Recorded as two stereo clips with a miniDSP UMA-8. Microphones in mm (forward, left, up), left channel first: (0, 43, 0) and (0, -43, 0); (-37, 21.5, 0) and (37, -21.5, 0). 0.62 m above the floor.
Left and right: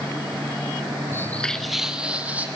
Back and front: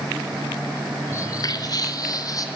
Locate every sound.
1.1 s footsteps: 125° left, 0.6 m; by 2.5 s 160° right, 1.7 m